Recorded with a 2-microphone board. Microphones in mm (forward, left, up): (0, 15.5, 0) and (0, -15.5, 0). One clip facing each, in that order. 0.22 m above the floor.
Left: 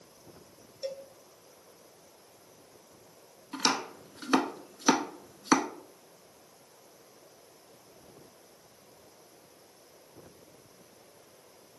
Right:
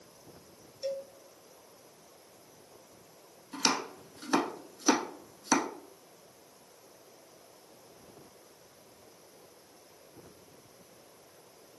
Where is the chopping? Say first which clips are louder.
Left 1 dB; 30° left (ahead or behind), 0.7 m.